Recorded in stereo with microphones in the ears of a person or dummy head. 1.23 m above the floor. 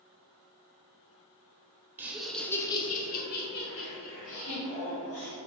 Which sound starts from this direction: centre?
Laughter, at 2.0 s.